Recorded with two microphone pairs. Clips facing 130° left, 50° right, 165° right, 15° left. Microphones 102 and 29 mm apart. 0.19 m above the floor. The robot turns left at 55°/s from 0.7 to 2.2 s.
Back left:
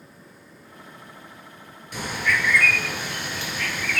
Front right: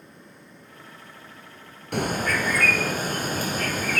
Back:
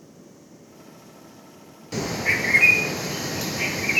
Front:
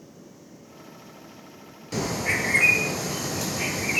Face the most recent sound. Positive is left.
turn(degrees=-95)